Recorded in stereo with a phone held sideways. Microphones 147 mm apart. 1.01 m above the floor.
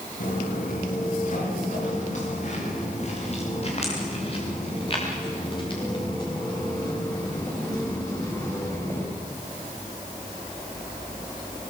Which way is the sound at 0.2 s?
70° left (ahead or behind).